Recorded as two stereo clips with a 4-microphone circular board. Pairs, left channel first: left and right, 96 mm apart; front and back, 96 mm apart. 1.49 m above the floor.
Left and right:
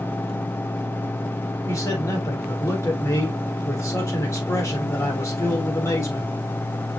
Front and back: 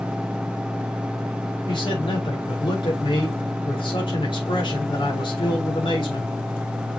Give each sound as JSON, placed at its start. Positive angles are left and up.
{"t": 1.7, "sound": "a man speaking", "azimuth_deg": 30, "distance_m": 4.0}